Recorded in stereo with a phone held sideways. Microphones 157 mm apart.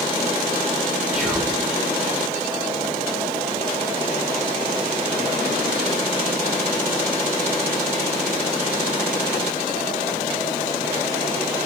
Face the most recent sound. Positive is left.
turn(degrees=-5)  # may be behind; listen again after turning